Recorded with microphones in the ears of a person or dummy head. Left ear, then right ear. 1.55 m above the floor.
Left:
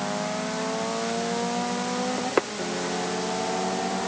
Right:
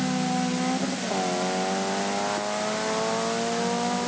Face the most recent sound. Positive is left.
No sound to turn to.